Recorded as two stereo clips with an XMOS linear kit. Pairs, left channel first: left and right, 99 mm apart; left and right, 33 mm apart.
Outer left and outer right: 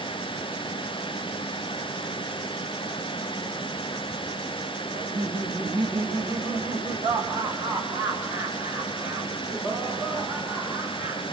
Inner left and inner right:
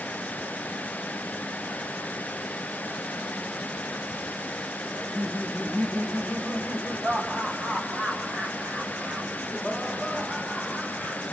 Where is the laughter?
50° right (ahead or behind), 6 m; by 11.2 s 20° right (ahead or behind), 11 m.